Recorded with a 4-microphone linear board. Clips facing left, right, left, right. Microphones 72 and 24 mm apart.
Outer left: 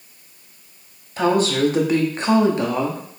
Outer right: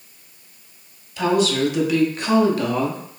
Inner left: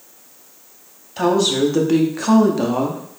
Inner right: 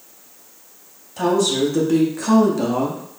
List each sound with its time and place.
1.2 s a woman speaking: 40° left (ahead or behind), 0.9 m; by 3.0 s 15° left (ahead or behind), 0.8 m